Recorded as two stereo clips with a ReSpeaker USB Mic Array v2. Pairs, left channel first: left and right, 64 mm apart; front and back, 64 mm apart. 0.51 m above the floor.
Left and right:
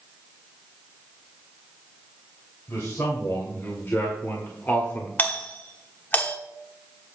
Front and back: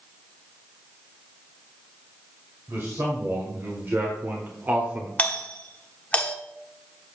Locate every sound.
2.7 s a man speaking: 135° left, 2.5 m; by 5.1 s 130° left, 1.2 m
5.2 s a doorbell: 50° left, 1.3 m